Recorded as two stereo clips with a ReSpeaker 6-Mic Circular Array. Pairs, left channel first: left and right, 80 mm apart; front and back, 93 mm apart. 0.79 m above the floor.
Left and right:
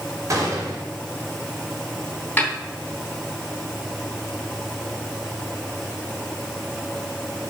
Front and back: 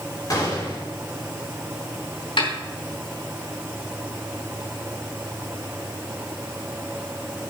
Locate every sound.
0.3 s a gunshot: 45° right, 2.5 m
2.4 s a snare drum: 20° left, 3 m